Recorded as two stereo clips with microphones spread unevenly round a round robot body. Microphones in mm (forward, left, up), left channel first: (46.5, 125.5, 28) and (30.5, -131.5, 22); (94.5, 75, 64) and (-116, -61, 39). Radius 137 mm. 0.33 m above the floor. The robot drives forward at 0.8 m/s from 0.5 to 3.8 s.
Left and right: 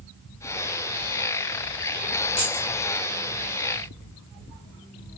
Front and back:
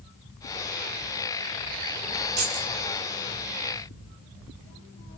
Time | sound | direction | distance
2.4 | keys jangling | 170° left | 1.8 m